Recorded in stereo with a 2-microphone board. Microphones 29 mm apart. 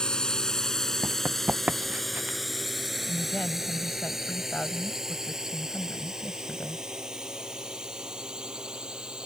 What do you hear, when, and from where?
0.0 s a drone: 25° left (ahead or behind); by 9.3 s 30° right (ahead or behind)
1.0 s running footsteps: 75° right (ahead or behind)
3.1 s a woman speaking: 60° left (ahead or behind)